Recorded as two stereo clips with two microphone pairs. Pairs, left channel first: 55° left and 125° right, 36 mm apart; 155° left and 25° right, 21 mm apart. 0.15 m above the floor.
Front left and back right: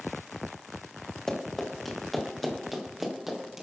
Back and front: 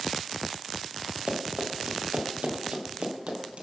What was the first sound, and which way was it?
Running footsteps, 20° right.